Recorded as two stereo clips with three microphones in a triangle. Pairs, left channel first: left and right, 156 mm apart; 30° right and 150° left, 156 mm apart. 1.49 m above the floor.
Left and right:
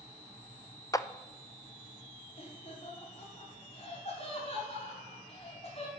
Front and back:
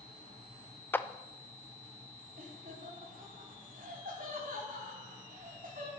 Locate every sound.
0.9 s a clap: 35° left, 0.6 m
2.4 s laughter: 135° left, 5 m